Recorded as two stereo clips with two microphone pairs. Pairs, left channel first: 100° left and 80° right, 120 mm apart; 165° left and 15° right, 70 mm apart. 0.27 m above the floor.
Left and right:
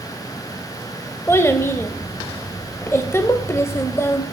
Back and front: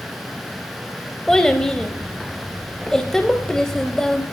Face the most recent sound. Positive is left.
turn(degrees=105)